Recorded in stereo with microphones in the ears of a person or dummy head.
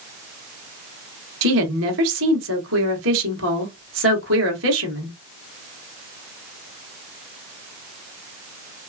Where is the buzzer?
I don't hear a buzzer.